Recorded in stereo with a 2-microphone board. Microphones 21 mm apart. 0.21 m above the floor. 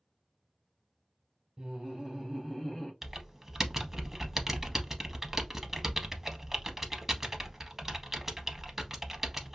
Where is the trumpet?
No trumpet in this recording.